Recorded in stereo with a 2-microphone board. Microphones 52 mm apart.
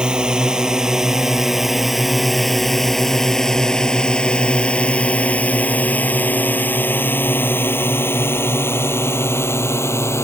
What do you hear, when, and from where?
0.0 s a drone: 15° right (ahead or behind); by 10.2 s 55° left (ahead or behind)